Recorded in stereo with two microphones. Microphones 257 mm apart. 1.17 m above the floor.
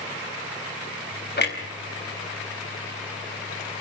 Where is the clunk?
40° left (ahead or behind), 3.5 m.